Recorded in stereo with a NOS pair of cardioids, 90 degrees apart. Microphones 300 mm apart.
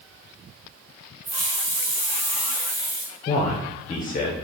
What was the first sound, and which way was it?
A hiss, 65° right.